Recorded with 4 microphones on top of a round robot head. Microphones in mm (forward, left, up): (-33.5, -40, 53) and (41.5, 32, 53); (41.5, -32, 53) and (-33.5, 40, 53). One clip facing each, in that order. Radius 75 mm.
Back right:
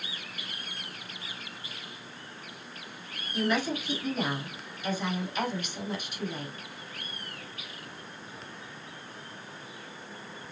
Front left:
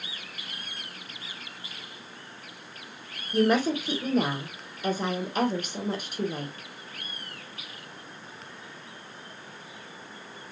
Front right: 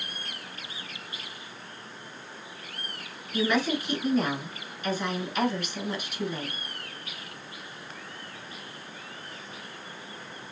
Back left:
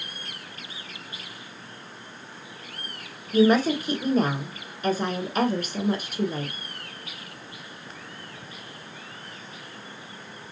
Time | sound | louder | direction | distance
3.3 | a woman speaking | front left 6 dB, back left 7 dB | 90° left | 2.5 m